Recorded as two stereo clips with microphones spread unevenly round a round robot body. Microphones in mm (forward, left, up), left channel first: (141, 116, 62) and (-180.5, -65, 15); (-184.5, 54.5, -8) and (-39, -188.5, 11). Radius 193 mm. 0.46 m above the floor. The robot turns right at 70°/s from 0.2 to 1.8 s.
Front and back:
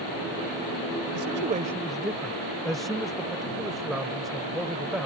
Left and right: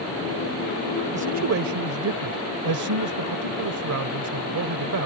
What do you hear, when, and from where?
1.1 s a man speaking: 110° right; by 5.1 s 65° right